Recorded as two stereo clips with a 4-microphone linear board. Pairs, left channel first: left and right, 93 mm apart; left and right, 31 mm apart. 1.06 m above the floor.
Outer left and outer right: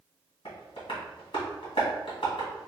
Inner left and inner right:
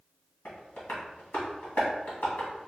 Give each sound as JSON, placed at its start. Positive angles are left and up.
{"t": 0.5, "sound": "tapping", "side_deg": 60, "distance_m": 1.8}